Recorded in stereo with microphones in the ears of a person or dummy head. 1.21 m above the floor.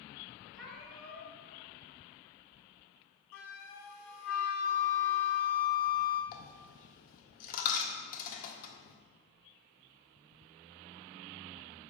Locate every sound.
0.5 s a cat meowing: centre (ahead or behind), 1.7 m
3.3 s a flute: 50° left (ahead or behind), 0.9 m
6.3 s a dropped coin: 50° left (ahead or behind), 1.1 m